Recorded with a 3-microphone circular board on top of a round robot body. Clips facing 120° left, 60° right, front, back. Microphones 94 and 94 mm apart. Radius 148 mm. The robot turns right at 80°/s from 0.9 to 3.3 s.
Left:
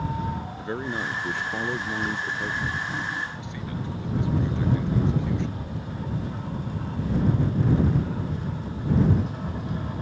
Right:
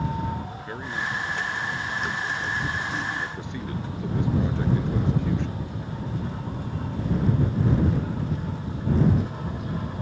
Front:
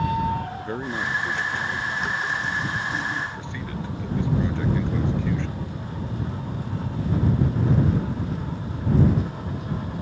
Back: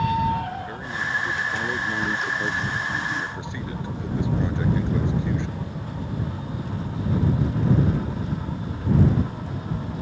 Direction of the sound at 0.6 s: 60° left.